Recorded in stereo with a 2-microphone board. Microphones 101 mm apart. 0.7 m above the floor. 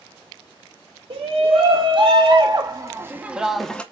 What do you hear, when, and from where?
1.1 s a shout: 65° right (ahead or behind), 1.4 m; by 3.8 s 10° left (ahead or behind), 0.7 m